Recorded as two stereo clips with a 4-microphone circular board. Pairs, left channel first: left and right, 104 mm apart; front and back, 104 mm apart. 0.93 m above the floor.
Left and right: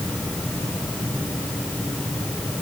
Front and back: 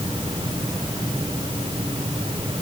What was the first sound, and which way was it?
Only background noise.